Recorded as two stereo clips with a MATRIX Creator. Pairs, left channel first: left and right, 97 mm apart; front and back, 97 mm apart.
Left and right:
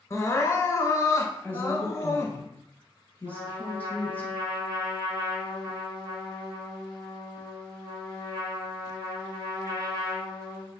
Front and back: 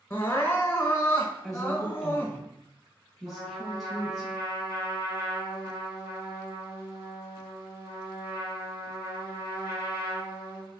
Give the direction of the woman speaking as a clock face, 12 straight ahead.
9 o'clock.